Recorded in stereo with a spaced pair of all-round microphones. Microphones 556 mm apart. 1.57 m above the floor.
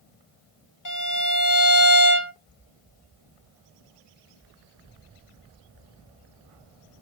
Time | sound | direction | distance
0.8 | a violin | 35° left (ahead or behind) | 0.8 m